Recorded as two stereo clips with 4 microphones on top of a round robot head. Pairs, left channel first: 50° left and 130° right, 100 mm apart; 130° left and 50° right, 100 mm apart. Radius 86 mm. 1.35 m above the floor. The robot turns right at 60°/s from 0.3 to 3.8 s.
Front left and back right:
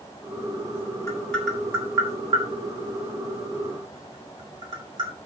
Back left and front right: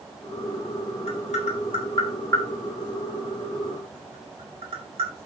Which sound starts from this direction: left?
Tapping, at 1.1 s.